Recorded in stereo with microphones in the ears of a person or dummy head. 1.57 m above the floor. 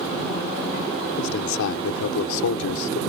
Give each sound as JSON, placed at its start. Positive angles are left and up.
{"t": 1.2, "sound": "a man speaking", "side_deg": 80}